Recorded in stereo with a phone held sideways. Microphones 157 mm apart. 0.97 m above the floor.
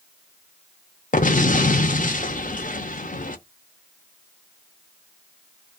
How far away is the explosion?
About 0.6 m.